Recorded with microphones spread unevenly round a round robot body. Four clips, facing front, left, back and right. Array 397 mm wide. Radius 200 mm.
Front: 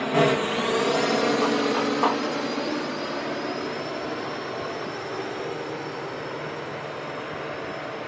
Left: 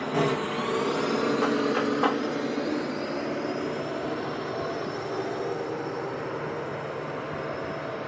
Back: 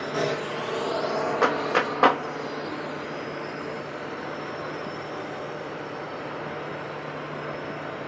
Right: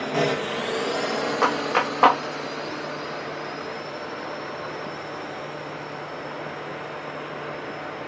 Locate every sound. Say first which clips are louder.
0.0 s a drone: right 2 dB, front 6 dB; 15° right; by 8.1 s 70° left
1.4 s a clap: right 2 dB, front 1 dB; 155° right